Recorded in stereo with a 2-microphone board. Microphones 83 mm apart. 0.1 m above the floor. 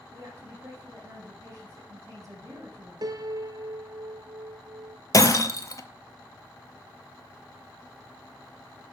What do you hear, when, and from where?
0.1 s a woman speaking: 40° right (ahead or behind), 4 m
3.0 s a piano: 55° right (ahead or behind), 0.6 m
5.1 s breaking glass: 45° left (ahead or behind), 0.7 m